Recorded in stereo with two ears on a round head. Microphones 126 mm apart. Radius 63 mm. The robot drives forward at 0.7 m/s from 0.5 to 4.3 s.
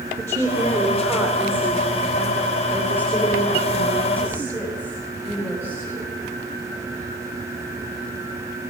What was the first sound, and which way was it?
A woman speaking, 20° right (ahead or behind).